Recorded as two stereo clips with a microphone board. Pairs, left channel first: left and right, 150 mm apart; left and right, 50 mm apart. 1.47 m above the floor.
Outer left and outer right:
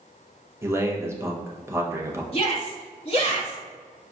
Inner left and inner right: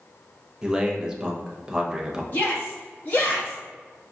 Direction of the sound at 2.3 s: 40° left (ahead or behind).